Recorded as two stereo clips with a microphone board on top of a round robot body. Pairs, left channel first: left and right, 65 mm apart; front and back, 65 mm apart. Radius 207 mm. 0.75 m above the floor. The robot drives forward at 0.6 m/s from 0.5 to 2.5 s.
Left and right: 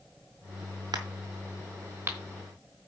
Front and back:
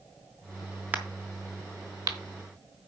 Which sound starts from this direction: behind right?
A crack, at 0.9 s.